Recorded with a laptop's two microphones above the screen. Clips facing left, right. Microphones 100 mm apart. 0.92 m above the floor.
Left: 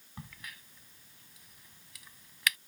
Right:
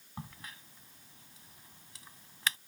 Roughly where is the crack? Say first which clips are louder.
Right 2 dB; right.